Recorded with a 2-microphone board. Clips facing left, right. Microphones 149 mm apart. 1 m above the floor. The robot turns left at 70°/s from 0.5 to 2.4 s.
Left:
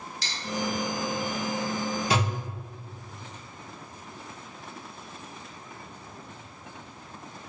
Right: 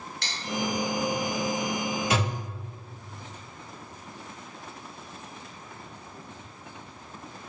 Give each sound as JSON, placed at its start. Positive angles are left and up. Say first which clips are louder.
{"t": 0.2, "sound": "cutlery clinking", "louder": "right 1 dB", "side_deg": -60, "distance_m": 0.6}
{"t": 2.1, "sound": "a thud", "louder": "left 2 dB", "side_deg": 30, "distance_m": 1.0}